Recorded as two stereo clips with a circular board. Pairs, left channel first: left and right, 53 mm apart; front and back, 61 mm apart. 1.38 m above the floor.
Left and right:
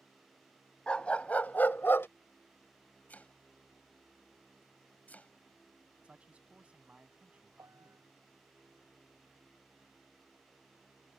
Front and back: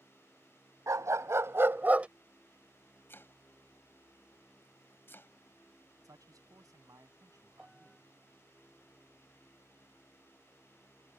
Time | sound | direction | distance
0.9 | a dog barking | 160° left | ?
3.1 | chopping | 40° left | ?
6.0 | a man speaking | 155° right | ?
7.6 | a piano | 90° right | ?